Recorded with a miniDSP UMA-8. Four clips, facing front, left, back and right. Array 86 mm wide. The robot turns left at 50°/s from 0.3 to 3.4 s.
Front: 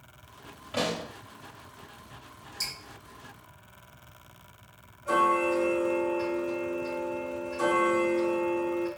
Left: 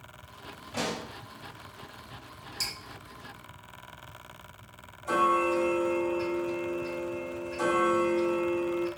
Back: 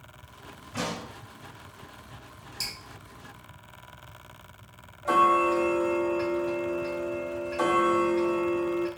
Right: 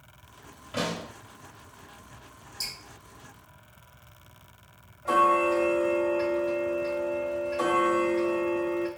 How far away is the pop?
About 2.5 m.